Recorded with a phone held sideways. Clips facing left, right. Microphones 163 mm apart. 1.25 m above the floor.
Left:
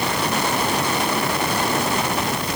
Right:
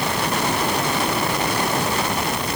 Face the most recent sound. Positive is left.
No sound to turn to.